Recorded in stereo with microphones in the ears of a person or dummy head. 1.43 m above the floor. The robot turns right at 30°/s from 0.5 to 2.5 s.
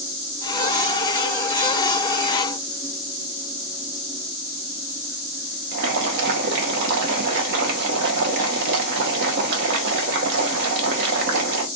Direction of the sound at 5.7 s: 60° right (ahead or behind).